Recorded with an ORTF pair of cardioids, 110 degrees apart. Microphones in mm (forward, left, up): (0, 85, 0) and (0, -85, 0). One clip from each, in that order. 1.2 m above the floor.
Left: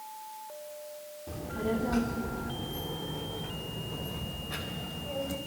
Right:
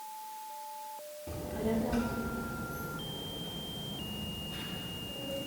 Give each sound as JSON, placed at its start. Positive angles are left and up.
{"t": 1.3, "sound": "a child speaking", "azimuth_deg": 0, "distance_m": 2.5}